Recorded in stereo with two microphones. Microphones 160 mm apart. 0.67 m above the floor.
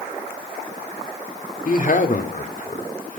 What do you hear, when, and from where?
1.6 s a man speaking: 55° left (ahead or behind), 1.7 m